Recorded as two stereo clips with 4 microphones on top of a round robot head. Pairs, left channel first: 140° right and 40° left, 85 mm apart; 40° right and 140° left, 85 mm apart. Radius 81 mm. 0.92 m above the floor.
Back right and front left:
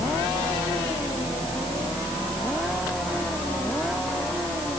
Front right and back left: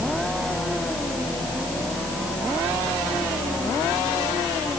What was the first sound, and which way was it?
Only background noise.